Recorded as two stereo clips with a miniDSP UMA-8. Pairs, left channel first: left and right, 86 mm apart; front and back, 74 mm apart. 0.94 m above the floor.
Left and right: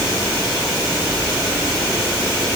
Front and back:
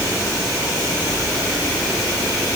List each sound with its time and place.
Only background noise.